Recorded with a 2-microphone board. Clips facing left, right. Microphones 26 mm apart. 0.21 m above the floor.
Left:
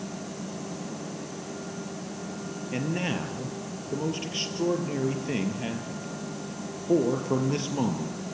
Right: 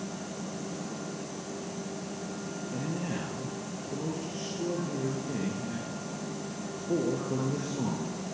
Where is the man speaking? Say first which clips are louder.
Left 6 dB; 65° left (ahead or behind), 4 m.